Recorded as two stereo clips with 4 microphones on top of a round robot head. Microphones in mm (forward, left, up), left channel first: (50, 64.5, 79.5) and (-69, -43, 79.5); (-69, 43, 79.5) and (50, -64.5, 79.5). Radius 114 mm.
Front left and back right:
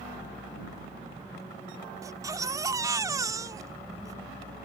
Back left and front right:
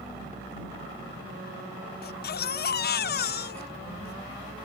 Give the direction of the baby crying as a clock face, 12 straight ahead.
7 o'clock.